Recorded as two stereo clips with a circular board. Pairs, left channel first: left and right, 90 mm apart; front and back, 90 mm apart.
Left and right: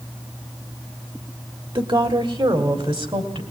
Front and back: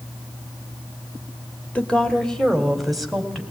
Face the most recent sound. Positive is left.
turn(degrees=-90)